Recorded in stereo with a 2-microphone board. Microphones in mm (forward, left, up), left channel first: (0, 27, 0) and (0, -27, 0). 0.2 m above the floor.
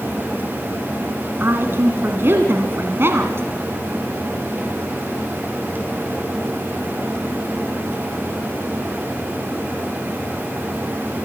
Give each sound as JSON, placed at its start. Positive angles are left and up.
{"t": 1.4, "sound": "a woman speaking", "side_deg": -50, "distance_m": 1.7}